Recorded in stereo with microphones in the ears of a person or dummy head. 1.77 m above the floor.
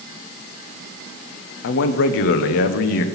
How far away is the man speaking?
About 1.0 m.